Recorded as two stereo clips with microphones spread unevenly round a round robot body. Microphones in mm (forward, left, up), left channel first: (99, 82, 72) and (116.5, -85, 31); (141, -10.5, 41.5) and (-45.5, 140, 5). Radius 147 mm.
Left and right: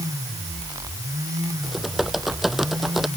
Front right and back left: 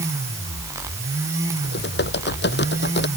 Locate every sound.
1.6 s typing on a keyboard: 5° left